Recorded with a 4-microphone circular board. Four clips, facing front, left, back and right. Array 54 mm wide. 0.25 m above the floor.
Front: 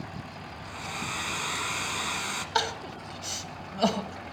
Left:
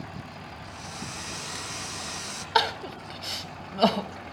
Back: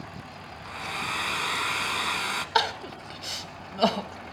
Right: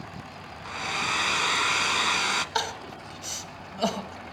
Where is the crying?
125° left, 0.8 m.